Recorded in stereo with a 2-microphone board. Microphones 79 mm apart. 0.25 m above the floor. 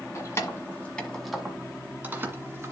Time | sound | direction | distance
0.1 | keys jangling | 40° left (ahead or behind) | 1.8 m